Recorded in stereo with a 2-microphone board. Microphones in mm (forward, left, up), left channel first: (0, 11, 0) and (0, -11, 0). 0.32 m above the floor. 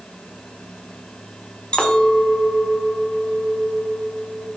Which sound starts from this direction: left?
A clink, at 1.7 s.